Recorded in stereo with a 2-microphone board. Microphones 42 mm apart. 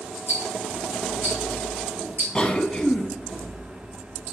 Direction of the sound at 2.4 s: 20° left (ahead or behind).